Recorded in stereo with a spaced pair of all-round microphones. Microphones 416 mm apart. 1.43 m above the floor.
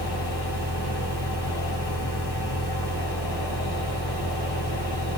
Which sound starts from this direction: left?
A fan, at 0.0 s.